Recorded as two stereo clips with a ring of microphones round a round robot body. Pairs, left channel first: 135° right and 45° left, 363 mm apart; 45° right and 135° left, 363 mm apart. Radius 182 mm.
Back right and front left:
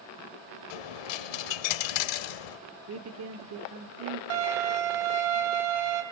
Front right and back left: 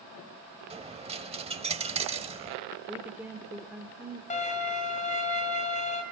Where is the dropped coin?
150° right, 0.8 m.